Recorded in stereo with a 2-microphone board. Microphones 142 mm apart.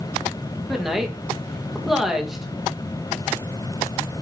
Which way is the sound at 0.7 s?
Centre (ahead or behind).